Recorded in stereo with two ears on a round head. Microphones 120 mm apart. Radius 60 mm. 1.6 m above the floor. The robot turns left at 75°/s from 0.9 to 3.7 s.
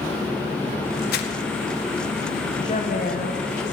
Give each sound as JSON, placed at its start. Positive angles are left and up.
{"t": 1.1, "sound": "crumpling", "side_deg": 85, "distance_m": 1.6}
{"t": 2.6, "sound": "a woman speaking", "azimuth_deg": 145, "distance_m": 1.2}